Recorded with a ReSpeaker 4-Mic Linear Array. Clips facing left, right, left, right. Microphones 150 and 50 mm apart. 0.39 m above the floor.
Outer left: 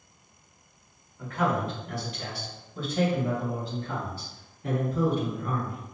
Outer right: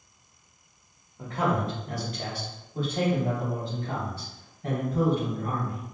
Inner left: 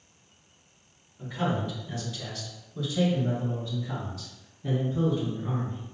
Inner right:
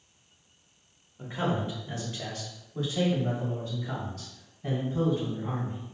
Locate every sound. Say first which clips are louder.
1.2 s a man speaking: even, even; 30° right (ahead or behind), 1.1 m; by 5.8 s 70° right (ahead or behind), 3 m